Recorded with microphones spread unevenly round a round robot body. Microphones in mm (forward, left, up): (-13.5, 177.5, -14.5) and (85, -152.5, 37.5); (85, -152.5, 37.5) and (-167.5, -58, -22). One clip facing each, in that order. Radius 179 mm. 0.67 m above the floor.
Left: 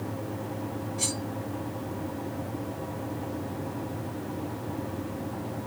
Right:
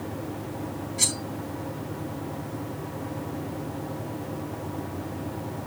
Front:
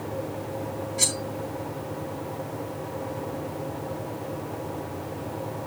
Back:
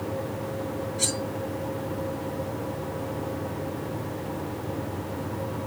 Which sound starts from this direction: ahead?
Cutlery clinking, at 1.0 s.